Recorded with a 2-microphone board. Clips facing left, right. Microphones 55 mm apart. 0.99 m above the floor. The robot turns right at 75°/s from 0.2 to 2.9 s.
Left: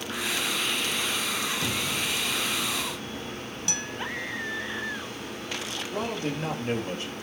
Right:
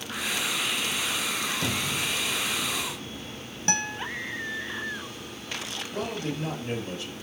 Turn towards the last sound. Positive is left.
turn(degrees=35)  # may be behind; listen again after turning